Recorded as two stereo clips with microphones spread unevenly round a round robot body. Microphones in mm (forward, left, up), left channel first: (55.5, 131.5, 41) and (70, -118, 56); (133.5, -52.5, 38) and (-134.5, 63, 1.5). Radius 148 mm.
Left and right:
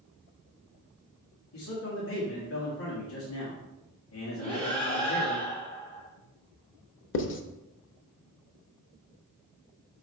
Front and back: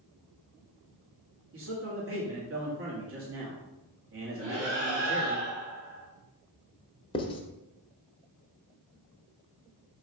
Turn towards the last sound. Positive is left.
turn(degrees=50)